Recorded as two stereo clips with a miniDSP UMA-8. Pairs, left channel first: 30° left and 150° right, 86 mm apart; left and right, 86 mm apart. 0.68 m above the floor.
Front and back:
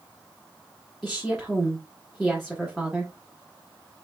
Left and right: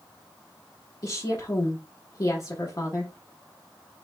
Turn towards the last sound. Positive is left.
turn(degrees=125)